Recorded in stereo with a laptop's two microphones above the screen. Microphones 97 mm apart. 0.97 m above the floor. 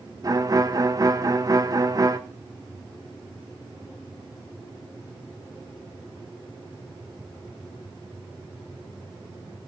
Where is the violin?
40° right (ahead or behind), 1.1 m.